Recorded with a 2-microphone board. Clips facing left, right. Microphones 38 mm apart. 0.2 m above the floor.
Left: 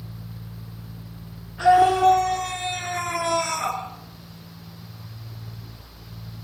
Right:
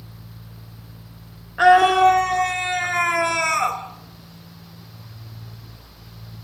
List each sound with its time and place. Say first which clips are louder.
1.6 s a scream: right 3 dB; 60° right (ahead or behind), 2.5 m; by 3.8 s 65° right (ahead or behind), 3.5 m